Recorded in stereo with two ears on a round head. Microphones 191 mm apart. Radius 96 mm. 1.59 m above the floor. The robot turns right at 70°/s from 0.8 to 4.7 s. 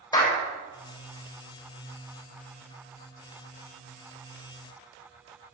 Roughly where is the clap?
Centre.